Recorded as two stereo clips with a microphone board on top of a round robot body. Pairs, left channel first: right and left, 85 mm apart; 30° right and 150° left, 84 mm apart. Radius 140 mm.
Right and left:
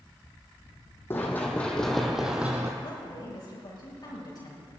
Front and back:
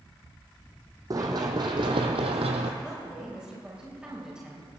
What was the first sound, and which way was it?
Running footsteps, 160° right.